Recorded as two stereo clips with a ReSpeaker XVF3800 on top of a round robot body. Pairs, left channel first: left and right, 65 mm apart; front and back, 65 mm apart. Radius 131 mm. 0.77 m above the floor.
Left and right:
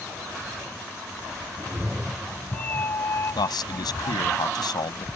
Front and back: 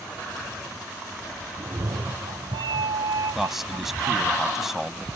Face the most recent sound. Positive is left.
turn(degrees=95)